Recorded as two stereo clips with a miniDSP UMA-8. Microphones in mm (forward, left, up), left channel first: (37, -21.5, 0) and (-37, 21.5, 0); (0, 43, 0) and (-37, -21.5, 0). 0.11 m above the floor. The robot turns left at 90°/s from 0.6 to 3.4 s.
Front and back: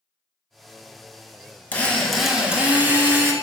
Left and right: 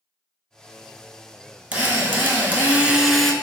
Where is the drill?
75° right, 0.5 m; by 3.3 s 140° left, 0.5 m.